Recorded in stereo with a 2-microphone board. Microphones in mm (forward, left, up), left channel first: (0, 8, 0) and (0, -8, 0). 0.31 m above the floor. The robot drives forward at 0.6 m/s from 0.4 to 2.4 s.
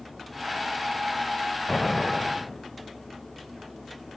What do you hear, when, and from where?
1.7 s an explosion: 30° left (ahead or behind), 1.2 m